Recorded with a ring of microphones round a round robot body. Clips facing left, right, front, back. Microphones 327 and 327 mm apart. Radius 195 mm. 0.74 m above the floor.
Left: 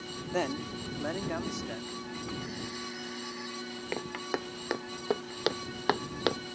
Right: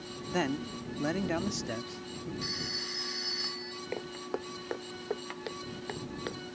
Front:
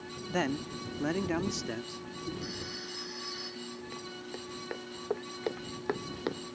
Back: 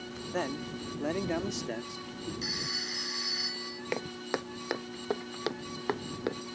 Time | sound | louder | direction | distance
0.3 | a man speaking | right 1 dB, front 2 dB | 35° right | ?
2.4 | a phone ringing | left 2 dB, even | 135° right | ?
3.9 | footsteps | left 1 dB, back 7 dB | 155° left | ?